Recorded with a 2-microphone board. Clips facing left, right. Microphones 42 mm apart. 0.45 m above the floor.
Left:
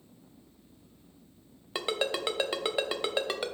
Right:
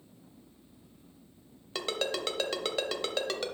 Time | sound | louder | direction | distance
1.8 | a ringtone | left 2 dB | 15° left (ahead or behind) | 0.7 m